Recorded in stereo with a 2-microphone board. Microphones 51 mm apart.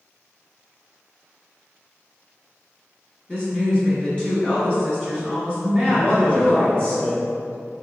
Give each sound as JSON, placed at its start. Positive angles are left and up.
{"t": 3.3, "sound": "a woman speaking", "side_deg": 20, "distance_m": 1.1}
{"t": 5.9, "sound": "a man speaking", "side_deg": 25, "distance_m": 1.2}